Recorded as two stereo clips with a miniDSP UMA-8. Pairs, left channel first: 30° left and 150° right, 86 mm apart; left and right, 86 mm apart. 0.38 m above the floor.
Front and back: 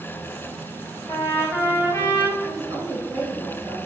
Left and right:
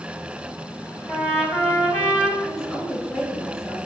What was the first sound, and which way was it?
A trumpet, 25° left.